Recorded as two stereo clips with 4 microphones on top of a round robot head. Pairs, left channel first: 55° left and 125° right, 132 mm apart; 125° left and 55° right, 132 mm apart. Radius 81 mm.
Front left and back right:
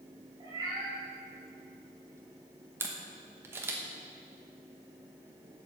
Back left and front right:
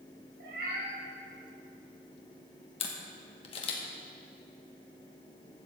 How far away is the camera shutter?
About 1.0 m.